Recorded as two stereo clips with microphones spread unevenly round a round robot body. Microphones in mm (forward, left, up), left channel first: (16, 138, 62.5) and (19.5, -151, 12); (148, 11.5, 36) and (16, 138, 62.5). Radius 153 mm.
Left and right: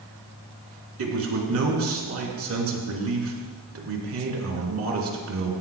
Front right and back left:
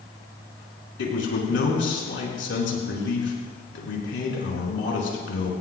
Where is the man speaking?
50° right, 4 m.